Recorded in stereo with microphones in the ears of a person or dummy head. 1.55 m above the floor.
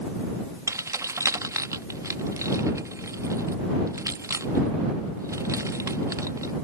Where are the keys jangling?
10° right (ahead or behind).